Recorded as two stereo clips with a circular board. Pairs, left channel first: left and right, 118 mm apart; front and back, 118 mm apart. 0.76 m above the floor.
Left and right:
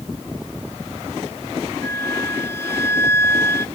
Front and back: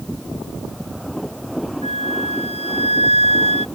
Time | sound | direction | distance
1.8 | a flute | 20° left | ?